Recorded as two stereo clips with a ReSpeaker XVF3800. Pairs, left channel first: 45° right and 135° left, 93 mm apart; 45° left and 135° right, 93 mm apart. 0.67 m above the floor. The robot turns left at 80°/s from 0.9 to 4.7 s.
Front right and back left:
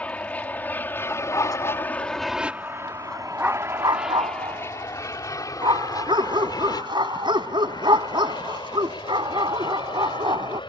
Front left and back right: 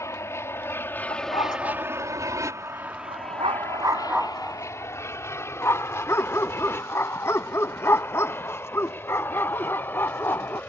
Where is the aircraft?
20° left; by 10.7 s 25° right.